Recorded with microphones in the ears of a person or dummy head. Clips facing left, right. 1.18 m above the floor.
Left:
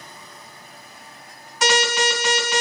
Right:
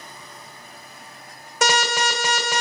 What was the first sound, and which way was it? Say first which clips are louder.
An alarm: left 1 dB; 50° right (ahead or behind).